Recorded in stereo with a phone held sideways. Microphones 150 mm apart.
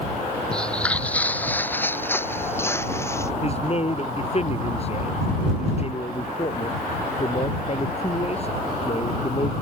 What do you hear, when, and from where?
0.5 s footsteps: 5° left (ahead or behind); by 3.3 s 20° left (ahead or behind)
3.4 s a man speaking: 45° left (ahead or behind)